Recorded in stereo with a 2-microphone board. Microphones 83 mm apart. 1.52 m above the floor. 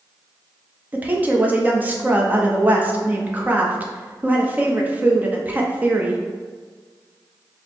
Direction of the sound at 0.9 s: 20° right (ahead or behind).